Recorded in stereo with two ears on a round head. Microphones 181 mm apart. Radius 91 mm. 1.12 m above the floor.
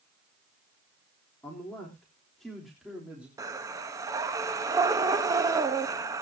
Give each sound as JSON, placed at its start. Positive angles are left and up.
{"t": 1.4, "sound": "a man speaking", "side_deg": 10, "distance_m": 3.5}
{"t": 3.4, "sound": "breathing", "side_deg": -20, "distance_m": 1.0}